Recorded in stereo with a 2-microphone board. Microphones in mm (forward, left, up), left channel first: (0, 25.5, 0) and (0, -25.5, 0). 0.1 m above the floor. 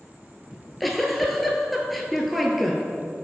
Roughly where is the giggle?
Centre.